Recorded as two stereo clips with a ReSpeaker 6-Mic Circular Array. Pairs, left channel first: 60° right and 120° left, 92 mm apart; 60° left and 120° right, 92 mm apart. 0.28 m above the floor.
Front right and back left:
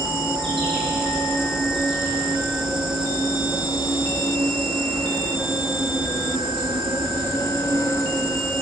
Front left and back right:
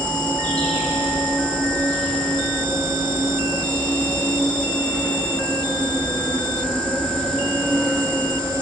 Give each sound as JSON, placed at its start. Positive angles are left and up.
{"t": 0.0, "sound": "an insect", "azimuth_deg": 140, "distance_m": 9.0}